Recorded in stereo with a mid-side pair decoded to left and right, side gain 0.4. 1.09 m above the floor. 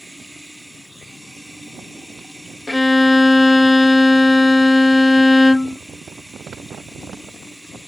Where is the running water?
Straight ahead.